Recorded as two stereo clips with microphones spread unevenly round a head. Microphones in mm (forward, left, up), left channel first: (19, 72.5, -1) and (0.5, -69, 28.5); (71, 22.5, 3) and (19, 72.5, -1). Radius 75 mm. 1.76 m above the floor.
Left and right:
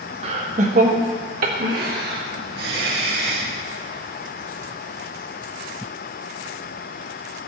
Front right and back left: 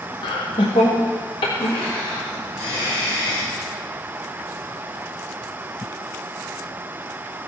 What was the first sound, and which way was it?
Laughter, 55° right.